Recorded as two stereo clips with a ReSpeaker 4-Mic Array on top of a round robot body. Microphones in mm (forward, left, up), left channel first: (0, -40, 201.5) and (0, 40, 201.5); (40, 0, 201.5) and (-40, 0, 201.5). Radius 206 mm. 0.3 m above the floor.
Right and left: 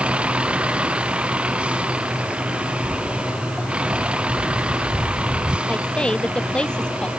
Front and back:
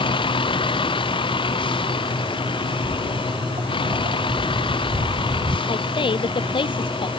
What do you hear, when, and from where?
0.0 s a vehicle: 15° left; by 7.2 s 10° left
2.8 s footsteps: 175° right; by 5.6 s 155° left
5.7 s a woman speaking: 10° right